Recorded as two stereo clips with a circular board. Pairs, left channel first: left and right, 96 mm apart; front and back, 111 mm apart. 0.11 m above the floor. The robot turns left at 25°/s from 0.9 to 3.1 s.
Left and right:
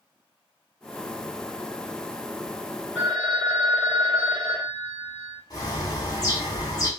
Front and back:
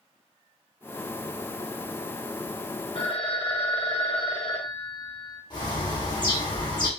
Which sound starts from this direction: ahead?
A phone ringing, at 3.0 s.